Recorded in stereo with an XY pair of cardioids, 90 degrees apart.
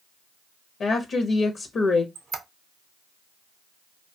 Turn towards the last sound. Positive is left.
turn(degrees=-65)